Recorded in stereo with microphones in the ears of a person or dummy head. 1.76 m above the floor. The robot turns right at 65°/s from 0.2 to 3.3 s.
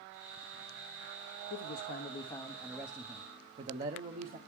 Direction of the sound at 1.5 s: 105° left.